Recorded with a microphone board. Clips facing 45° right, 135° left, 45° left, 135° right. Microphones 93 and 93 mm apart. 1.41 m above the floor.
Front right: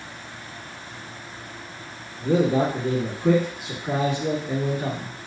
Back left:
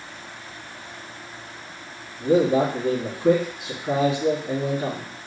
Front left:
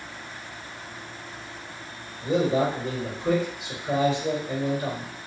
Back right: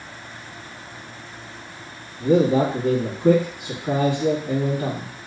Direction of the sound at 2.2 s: 155° right.